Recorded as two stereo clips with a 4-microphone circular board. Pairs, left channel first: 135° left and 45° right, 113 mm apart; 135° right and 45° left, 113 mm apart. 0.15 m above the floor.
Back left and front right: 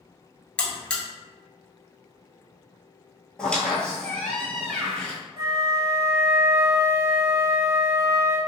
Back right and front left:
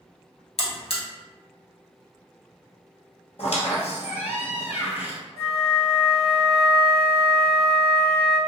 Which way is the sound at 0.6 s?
145° right.